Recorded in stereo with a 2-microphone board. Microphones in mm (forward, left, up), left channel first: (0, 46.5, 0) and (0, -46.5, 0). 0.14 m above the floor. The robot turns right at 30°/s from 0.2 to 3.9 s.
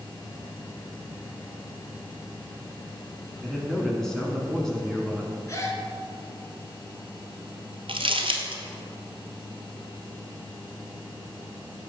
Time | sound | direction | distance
3.4 | a man speaking | centre (ahead or behind) | 1.1 m
5.5 | a gasp | 30° left (ahead or behind) | 1.4 m
7.9 | crumpling | 70° right (ahead or behind) | 0.9 m